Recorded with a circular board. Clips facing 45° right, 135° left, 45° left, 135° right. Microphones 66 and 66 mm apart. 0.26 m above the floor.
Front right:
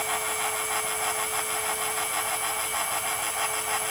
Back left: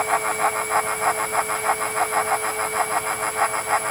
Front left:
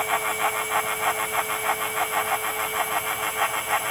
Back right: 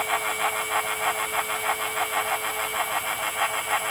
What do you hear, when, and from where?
Only background noise.